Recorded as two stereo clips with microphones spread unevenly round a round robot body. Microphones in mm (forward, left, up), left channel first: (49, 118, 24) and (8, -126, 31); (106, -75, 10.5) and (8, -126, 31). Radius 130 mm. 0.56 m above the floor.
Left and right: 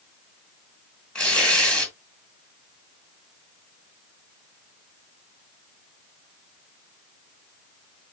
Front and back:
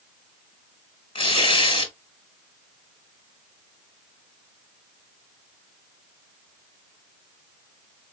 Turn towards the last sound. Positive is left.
turn(degrees=-5)